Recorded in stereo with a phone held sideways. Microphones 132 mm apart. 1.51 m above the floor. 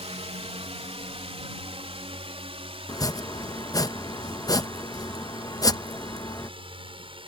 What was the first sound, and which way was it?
A drone, 55° right (ahead or behind).